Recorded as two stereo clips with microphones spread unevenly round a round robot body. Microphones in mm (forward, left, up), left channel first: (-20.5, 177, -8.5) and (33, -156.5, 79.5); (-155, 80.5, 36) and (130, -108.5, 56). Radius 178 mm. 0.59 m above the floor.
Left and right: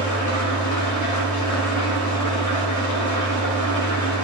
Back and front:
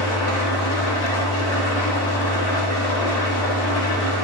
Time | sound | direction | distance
0.0 | an engine running | 135° left | 1.5 m